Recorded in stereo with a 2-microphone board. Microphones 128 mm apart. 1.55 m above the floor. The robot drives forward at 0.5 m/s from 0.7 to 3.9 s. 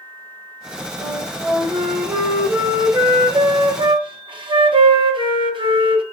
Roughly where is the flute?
Centre.